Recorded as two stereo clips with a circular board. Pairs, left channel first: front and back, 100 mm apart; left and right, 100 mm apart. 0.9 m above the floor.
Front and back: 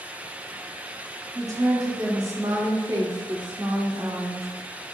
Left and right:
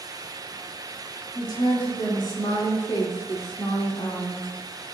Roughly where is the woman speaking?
Behind left.